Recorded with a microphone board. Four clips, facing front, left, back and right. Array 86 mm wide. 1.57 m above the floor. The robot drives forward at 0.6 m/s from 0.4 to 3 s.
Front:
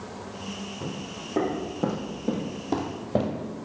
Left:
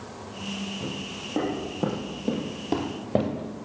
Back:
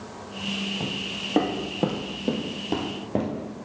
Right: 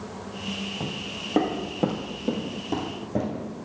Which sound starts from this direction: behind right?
Footsteps, at 0.8 s.